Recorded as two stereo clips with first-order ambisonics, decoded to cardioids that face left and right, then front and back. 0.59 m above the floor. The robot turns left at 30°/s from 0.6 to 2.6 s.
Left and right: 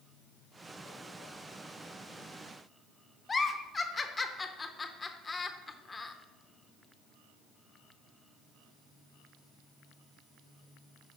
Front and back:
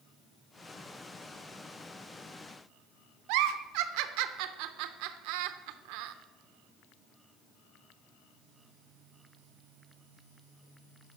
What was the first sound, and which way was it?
A giggle, 165° left.